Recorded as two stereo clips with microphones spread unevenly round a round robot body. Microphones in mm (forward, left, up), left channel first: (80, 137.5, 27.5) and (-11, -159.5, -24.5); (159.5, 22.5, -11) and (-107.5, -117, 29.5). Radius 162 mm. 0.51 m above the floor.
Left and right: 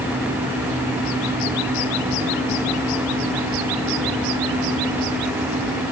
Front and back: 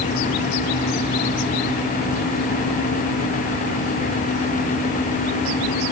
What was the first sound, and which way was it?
Only background noise.